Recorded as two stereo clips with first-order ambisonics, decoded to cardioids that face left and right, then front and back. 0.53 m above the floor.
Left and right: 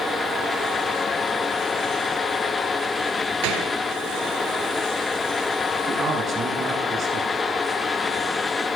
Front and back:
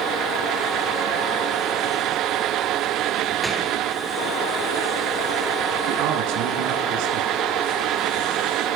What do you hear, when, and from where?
3.4 s a gunshot: 90° right, 6 m
5.9 s a man speaking: 155° right, 6 m